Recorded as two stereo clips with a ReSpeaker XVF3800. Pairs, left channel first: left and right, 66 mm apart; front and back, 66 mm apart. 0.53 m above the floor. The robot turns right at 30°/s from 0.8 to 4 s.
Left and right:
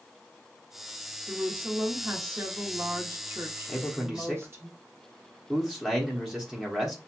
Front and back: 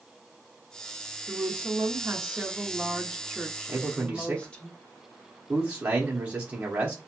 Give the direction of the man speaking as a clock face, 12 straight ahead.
6 o'clock.